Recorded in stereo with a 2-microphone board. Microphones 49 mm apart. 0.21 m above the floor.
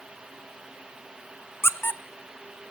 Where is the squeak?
55° left (ahead or behind), 0.9 m.